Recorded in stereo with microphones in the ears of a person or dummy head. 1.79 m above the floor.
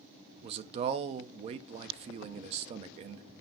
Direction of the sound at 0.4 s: 35° right (ahead or behind).